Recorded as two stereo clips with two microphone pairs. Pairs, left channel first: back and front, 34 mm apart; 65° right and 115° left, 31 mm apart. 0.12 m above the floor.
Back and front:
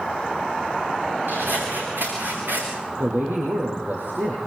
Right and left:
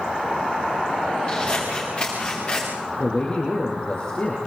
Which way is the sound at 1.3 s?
5° right.